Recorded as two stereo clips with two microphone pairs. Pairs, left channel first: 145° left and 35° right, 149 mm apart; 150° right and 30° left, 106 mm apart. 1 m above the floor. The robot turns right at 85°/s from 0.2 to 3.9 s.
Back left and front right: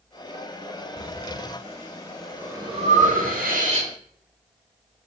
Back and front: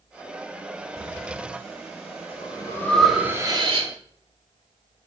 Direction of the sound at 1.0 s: 125° left.